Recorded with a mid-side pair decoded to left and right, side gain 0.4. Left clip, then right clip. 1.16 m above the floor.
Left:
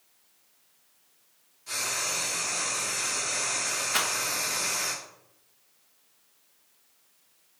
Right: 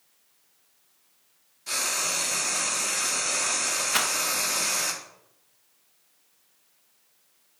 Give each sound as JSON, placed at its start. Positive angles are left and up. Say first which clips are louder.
{"t": 1.7, "sound": "frying", "louder": "right 3 dB", "azimuth_deg": -60, "distance_m": 1.0}
{"t": 3.9, "sound": "a rattle", "louder": "right 1 dB", "azimuth_deg": -20, "distance_m": 0.7}